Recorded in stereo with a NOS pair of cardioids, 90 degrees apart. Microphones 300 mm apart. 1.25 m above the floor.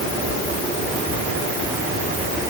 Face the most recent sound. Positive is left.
No sound to turn to.